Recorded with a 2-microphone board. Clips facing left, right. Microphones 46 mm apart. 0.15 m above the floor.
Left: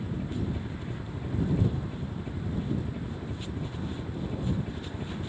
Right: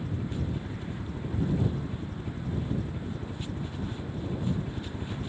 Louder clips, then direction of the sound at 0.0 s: Left 1 dB; 10° left (ahead or behind).